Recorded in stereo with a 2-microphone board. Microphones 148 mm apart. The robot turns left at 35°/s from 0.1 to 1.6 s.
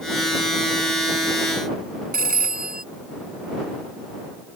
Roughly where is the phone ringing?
Right.